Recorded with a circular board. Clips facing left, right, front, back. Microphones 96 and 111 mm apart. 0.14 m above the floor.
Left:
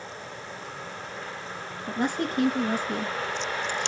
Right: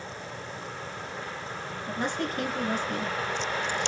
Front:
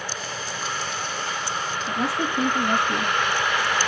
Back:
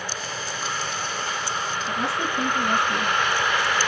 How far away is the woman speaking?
About 2.5 m.